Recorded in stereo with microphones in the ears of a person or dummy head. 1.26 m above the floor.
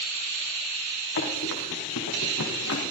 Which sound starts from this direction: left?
Running footsteps, at 1.2 s.